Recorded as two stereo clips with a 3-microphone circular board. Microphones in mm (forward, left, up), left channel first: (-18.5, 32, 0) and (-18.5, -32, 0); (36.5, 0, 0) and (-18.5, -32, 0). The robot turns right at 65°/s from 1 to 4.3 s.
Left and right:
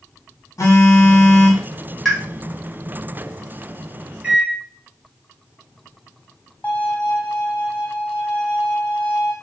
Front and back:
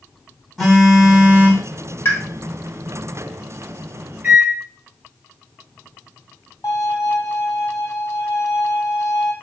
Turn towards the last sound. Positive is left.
turn(degrees=30)